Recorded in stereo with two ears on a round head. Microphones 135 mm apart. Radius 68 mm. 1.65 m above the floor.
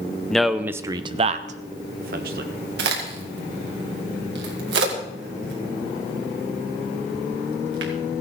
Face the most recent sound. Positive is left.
turn(degrees=-85)